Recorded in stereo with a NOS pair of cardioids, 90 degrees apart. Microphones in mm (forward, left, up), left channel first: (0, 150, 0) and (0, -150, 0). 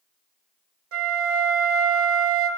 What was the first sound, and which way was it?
A flute, 50° right.